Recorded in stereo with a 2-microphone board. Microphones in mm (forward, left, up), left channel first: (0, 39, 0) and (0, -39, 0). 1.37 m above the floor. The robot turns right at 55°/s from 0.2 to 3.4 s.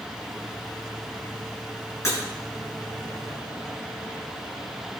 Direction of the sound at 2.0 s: 40° left (ahead or behind).